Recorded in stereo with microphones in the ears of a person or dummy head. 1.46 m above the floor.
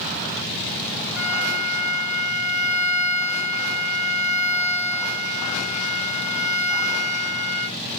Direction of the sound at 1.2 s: 5° right (ahead or behind).